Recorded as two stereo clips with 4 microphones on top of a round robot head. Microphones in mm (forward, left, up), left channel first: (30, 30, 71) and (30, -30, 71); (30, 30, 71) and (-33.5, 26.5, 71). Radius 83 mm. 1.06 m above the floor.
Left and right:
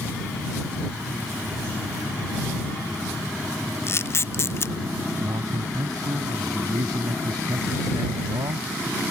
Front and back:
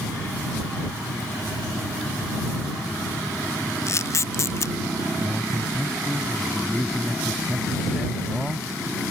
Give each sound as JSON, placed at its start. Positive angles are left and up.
{"t": 3.9, "sound": "a camera shutter", "azimuth_deg": 45}
{"t": 5.2, "sound": "a man speaking", "azimuth_deg": -90}